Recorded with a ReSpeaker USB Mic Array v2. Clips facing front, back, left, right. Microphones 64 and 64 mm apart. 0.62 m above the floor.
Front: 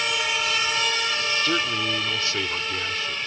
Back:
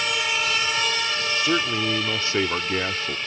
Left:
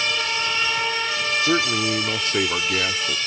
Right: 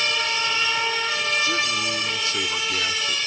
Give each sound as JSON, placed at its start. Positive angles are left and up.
{"t": 1.4, "sound": "a man speaking", "azimuth_deg": 100}